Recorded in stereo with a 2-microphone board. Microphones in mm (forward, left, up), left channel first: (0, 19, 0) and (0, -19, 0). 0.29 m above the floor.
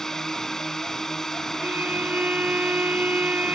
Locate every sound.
0.0 s a drone: 15° left (ahead or behind)
1.6 s a violin: 50° right (ahead or behind)